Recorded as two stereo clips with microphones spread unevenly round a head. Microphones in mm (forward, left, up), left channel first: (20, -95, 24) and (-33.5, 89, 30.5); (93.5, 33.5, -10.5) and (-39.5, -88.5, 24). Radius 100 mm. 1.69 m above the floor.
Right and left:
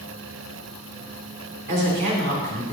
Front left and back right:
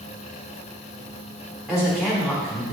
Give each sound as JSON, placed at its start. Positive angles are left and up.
{"t": 1.7, "sound": "a woman speaking", "azimuth_deg": 135, "distance_m": 2.0}